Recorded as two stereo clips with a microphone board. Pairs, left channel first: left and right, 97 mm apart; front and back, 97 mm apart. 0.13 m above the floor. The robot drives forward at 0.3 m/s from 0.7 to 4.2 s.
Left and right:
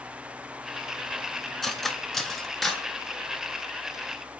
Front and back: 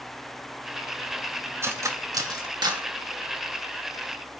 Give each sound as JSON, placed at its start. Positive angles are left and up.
{"t": 1.6, "sound": "cutlery clinking", "azimuth_deg": 175, "distance_m": 0.7}